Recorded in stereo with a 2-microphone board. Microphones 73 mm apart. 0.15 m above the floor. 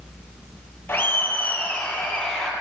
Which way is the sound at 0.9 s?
30° left (ahead or behind).